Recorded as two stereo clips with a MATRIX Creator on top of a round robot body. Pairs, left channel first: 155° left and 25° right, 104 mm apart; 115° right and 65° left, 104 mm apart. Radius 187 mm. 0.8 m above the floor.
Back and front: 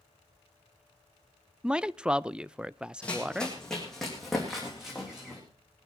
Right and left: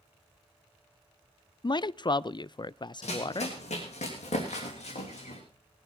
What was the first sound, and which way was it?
A man speaking, 100° right.